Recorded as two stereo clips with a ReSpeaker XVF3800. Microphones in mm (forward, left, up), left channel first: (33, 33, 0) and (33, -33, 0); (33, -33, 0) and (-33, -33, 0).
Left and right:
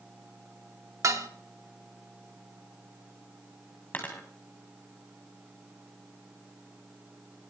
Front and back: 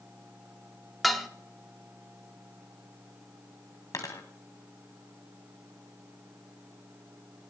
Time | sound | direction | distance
1.0 | dishes clattering | 90° right | 0.9 m
3.9 | a dropped coin | 25° left | 2.5 m